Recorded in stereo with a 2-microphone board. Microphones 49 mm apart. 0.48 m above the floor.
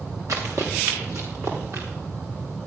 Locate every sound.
0.3 s running footsteps: 65° right (ahead or behind), 3 m; by 1.9 s 60° right (ahead or behind), 4.5 m